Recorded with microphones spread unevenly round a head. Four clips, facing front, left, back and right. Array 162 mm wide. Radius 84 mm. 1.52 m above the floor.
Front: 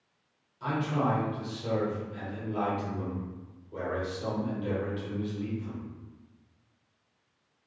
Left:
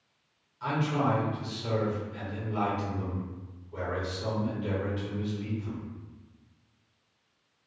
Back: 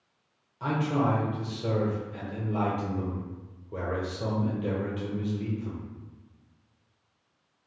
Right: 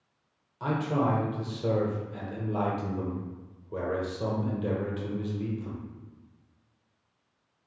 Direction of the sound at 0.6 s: 115° right.